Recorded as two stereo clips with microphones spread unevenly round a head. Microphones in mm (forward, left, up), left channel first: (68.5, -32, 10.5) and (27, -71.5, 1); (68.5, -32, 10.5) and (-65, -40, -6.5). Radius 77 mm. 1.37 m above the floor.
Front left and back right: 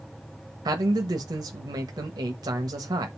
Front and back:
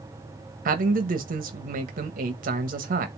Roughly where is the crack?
I don't hear a crack.